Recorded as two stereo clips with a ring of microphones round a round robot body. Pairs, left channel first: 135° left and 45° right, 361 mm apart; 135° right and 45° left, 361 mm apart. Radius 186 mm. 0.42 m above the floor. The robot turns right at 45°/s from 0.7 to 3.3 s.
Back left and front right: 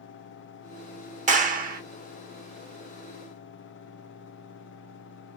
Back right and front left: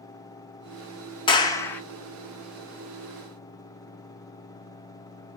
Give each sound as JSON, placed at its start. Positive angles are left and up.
{"t": 1.3, "sound": "a clap", "azimuth_deg": -80, "distance_m": 0.9}